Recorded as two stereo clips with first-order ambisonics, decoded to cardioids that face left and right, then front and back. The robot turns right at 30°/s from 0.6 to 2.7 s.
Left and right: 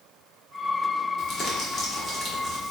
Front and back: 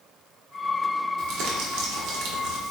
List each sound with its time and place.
1.2 s crumpling: 145° left, 0.7 m; by 2.7 s 170° right, 0.7 m